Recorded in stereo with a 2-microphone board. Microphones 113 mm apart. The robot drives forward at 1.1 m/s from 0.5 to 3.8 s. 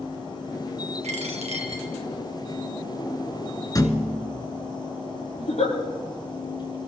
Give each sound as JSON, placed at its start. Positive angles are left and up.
{"t": 1.0, "sound": "a dropped coin", "side_deg": -80, "distance_m": 1.9}
{"t": 3.8, "sound": "a thud", "side_deg": 35, "distance_m": 1.3}
{"t": 5.4, "sound": "a giggle", "side_deg": 85, "distance_m": 9.0}